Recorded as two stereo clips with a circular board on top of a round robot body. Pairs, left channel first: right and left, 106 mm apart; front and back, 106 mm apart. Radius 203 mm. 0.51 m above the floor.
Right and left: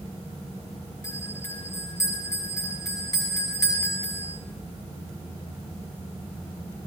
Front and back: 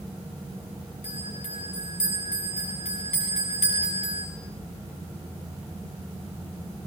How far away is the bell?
About 10 m.